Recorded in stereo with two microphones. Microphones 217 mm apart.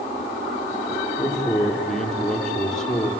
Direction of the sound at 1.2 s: Centre (ahead or behind).